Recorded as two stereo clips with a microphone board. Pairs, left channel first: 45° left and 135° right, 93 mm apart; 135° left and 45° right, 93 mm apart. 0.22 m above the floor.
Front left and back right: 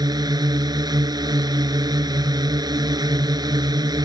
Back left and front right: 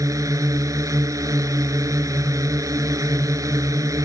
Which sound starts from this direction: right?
A drone, at 0.0 s.